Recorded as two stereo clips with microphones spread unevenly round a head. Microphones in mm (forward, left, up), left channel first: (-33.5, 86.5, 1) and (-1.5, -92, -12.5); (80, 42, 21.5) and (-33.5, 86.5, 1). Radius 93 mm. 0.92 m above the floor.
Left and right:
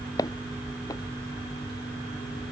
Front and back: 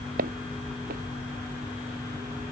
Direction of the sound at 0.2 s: 170° left.